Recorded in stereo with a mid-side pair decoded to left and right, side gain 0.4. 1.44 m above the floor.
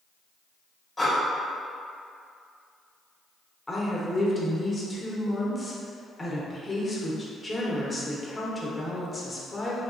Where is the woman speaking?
25° left, 0.9 m.